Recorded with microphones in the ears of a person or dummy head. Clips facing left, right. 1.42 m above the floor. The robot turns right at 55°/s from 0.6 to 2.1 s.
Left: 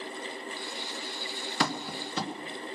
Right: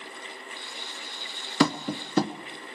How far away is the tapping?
About 1.0 m.